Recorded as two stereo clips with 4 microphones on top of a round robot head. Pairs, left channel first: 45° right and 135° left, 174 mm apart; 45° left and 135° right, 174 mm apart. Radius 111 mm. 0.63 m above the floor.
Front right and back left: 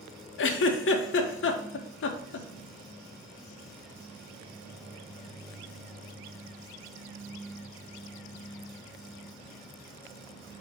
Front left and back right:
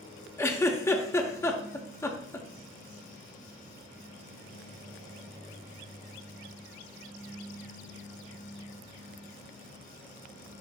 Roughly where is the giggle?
Ahead right.